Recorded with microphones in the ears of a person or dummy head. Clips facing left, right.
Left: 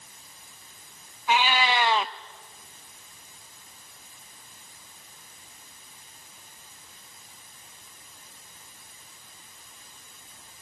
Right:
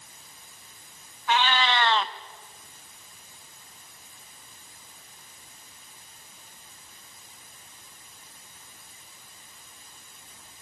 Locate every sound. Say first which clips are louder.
1.3 s a cat meowing: left 1 dB; 15° left (ahead or behind), 0.5 m